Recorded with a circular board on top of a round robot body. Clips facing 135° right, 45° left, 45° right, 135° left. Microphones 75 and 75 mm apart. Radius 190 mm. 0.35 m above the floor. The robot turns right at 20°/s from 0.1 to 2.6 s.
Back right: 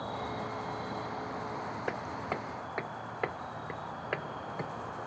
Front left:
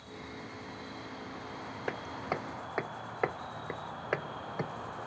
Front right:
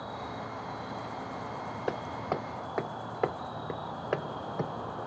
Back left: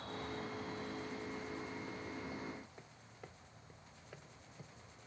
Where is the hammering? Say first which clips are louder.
Front left 2 dB, front right 13 dB; 45° right; by 4.7 s 30° right.